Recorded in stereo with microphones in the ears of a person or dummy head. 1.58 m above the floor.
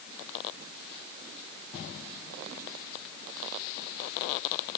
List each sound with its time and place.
Only background noise.